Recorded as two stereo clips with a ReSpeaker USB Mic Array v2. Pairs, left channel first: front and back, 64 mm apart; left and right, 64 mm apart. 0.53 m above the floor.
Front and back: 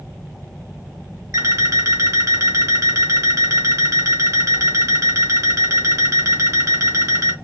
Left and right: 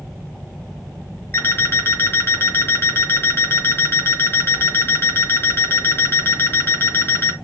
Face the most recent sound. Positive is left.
turn(degrees=140)